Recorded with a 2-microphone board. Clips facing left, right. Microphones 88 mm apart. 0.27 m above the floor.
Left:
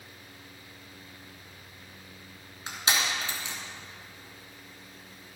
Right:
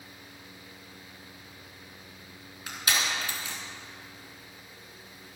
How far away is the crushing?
About 3.5 m.